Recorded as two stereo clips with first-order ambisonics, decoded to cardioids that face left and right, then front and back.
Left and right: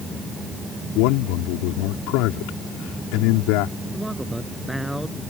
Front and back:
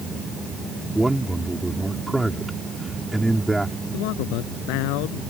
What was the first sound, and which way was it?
A man speaking, 95° left.